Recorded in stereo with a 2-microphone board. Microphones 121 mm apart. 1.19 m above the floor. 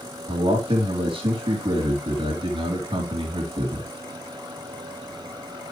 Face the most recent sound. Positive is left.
turn(degrees=-45)  # may be behind; listen again after turning